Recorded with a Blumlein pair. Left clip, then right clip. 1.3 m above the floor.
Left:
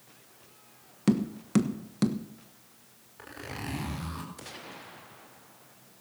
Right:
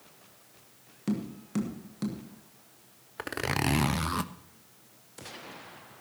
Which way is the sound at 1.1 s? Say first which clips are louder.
Left 7 dB; 25° left.